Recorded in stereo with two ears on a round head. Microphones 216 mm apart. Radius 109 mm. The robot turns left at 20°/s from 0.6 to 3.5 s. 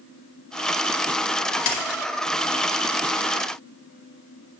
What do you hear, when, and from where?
1.6 s a splash: 70° left (ahead or behind), 1.1 m; by 2.0 s 60° left (ahead or behind), 1.1 m